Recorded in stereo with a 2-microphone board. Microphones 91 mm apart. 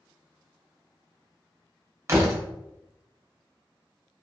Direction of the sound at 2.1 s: 30° right (ahead or behind).